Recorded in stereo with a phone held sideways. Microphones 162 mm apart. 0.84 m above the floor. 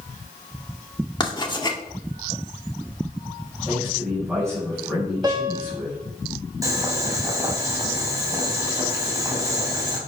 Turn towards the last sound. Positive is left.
turn(degrees=-20)  # may be behind; listen again after turning